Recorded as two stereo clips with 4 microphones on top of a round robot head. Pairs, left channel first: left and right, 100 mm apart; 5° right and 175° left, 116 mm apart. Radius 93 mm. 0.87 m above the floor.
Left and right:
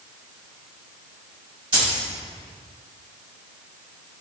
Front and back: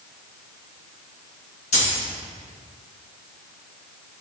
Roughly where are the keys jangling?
Ahead right.